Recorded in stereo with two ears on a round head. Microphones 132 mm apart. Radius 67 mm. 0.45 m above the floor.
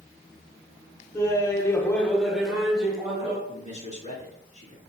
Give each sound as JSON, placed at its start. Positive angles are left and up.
{"t": 1.1, "sound": "laughter", "side_deg": 20, "distance_m": 1.3}
{"t": 3.5, "sound": "a man speaking", "side_deg": 35, "distance_m": 3.5}